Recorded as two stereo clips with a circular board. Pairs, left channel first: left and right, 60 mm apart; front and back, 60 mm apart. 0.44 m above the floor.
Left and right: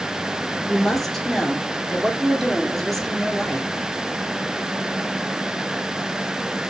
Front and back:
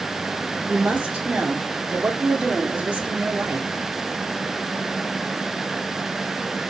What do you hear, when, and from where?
0.7 s a woman speaking: 170° left, 1.0 m